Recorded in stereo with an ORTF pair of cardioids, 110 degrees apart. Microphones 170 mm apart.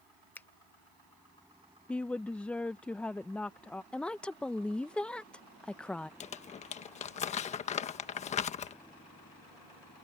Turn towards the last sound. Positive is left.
turn(degrees=40)